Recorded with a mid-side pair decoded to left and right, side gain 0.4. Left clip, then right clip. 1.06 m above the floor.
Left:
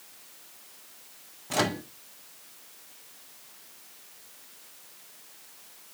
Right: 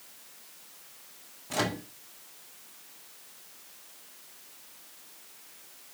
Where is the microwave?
25° left, 1.3 m.